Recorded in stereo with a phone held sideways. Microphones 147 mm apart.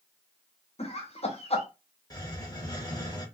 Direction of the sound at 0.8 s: 45° left (ahead or behind).